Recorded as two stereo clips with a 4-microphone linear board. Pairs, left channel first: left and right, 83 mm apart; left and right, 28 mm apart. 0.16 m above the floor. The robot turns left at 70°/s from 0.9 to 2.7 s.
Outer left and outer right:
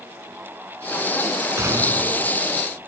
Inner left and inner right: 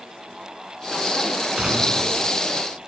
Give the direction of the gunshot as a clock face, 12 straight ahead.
4 o'clock.